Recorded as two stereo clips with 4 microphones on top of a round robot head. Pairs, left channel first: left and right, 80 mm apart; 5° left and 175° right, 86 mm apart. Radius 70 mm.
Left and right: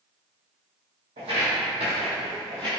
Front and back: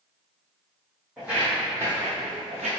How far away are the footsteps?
About 1.5 m.